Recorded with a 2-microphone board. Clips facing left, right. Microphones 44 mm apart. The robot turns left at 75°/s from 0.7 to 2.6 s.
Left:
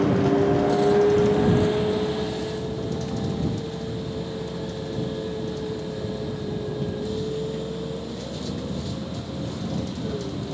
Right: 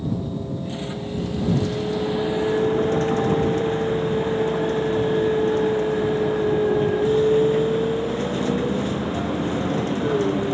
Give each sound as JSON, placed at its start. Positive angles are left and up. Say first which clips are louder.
{"t": 0.0, "sound": "a vehicle", "louder": "left 8 dB", "azimuth_deg": 100}